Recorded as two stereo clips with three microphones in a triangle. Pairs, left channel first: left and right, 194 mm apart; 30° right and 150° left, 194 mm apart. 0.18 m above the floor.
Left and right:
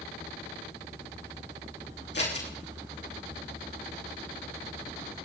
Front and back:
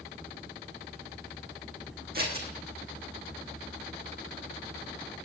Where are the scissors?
115° left, 4.5 m.